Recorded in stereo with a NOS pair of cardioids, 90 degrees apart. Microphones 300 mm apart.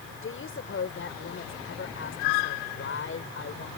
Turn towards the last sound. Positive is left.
turn(degrees=45)